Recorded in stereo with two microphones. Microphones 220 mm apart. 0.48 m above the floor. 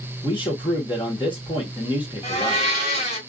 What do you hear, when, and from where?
0.2 s a man speaking: 20° left (ahead or behind), 0.9 m
2.2 s a blender: 25° left (ahead or behind), 1.7 m